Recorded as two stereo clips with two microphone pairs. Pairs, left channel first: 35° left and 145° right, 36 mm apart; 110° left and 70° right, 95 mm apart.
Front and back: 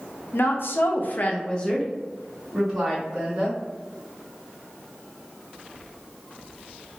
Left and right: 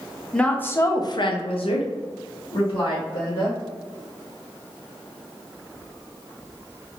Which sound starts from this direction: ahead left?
A woman speaking, at 0.3 s.